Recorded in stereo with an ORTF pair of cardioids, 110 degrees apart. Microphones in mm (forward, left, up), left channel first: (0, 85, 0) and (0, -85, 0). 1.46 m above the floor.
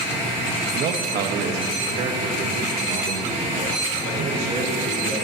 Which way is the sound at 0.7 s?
70° right.